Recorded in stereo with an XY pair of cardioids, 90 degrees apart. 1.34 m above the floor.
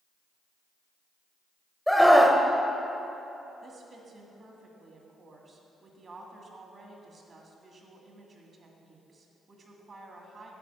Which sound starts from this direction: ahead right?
A woman speaking, at 3.6 s.